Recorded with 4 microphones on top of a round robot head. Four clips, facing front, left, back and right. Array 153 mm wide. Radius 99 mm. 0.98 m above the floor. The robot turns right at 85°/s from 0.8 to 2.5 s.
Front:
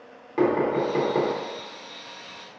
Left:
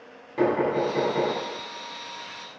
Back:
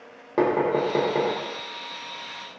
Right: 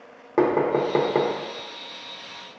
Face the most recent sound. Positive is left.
turn(degrees=25)